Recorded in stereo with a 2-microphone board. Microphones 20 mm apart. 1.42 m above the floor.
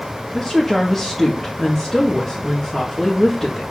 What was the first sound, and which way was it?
A woman speaking, 5° right (ahead or behind).